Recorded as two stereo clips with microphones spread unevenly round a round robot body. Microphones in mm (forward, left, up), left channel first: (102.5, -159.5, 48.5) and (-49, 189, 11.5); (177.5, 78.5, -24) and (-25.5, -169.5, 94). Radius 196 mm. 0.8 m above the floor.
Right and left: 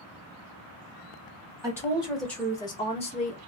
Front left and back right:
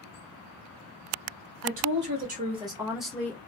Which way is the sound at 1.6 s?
Straight behind.